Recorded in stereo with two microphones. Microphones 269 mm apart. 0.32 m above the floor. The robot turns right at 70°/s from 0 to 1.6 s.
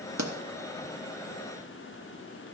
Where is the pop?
85° right, 1.1 m; by 0.3 s 80° right, 1.1 m.